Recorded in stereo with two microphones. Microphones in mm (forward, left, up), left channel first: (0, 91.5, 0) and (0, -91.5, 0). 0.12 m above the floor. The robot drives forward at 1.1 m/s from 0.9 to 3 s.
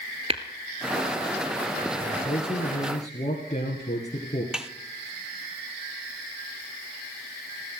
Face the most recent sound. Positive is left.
turn(degrees=-5)  # may be behind; listen again after turning